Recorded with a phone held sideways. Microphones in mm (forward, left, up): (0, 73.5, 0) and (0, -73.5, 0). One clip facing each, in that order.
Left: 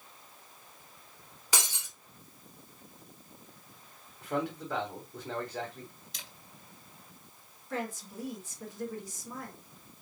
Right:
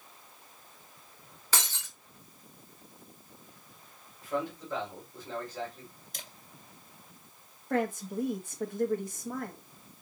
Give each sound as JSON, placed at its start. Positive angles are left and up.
{"t": 1.5, "sound": "breaking glass", "side_deg": 15, "distance_m": 1.2}
{"t": 4.2, "sound": "a man speaking", "side_deg": 70, "distance_m": 3.0}
{"t": 6.1, "sound": "a camera shutter", "side_deg": -50, "distance_m": 1.6}
{"t": 7.7, "sound": "a woman speaking", "side_deg": -55, "distance_m": 1.0}